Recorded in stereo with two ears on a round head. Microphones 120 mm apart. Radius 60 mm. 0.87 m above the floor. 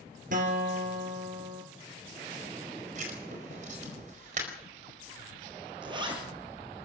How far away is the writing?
About 4.5 m.